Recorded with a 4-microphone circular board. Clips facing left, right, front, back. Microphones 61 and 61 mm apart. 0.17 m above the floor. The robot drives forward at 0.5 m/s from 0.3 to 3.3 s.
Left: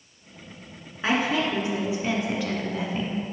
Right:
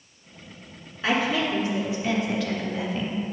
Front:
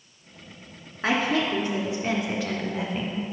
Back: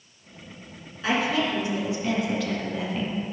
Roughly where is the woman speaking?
Ahead.